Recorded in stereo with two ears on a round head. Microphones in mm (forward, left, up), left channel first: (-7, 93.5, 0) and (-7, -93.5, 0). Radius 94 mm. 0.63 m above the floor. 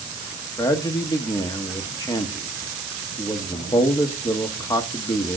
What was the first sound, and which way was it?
A man speaking, 15° left (ahead or behind).